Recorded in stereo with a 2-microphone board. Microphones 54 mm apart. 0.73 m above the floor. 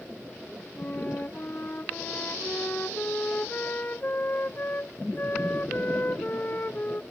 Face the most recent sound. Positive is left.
turn(degrees=35)  # may be behind; listen again after turning